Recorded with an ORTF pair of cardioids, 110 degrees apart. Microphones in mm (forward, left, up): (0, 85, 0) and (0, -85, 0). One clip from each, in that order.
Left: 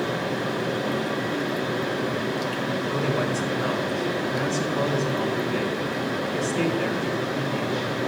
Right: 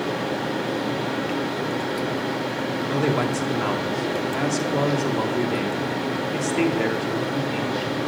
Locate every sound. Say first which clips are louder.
0.0 s a fan: right 1 dB; 15° right, 4.5 m
2.9 s a man speaking: right 4 dB; 45° right, 2.5 m